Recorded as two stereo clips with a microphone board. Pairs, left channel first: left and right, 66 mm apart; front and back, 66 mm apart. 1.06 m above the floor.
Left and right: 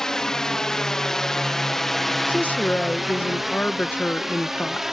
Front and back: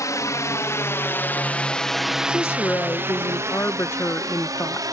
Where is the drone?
10° left; by 4.9 s 175° right.